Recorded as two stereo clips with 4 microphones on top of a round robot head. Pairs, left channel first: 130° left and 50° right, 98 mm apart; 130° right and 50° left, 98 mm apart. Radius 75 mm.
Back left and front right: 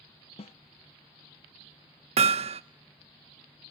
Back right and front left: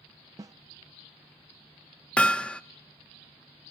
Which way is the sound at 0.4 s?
110° left.